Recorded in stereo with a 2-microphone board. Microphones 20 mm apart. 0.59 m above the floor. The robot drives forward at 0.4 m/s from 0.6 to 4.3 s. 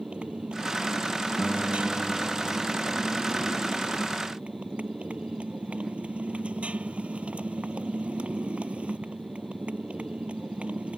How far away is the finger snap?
No finger snap in this recording.